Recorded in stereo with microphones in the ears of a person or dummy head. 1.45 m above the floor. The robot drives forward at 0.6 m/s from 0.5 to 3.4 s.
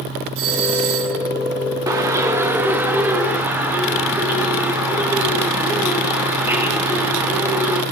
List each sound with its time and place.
0.3 s a doorbell: 65° right (ahead or behind), 4.5 m; by 1.2 s 70° right (ahead or behind), 4.5 m
1.9 s a bird: 10° right (ahead or behind), 1.0 m; by 7.8 s 5° right (ahead or behind), 1.8 m